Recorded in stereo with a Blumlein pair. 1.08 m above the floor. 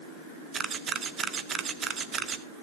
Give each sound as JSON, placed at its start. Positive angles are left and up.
{"t": 0.5, "sound": "a camera shutter", "azimuth_deg": -20, "distance_m": 1.0}